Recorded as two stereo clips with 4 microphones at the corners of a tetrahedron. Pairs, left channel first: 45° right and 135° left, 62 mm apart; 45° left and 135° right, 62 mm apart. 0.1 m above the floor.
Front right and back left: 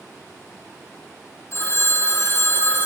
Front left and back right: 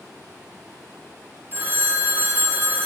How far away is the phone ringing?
About 1.4 m.